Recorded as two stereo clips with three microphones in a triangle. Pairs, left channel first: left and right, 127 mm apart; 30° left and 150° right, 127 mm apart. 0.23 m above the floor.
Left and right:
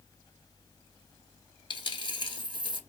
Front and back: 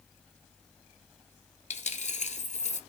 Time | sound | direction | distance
1.7 | a dropped coin | 40° left | 0.8 m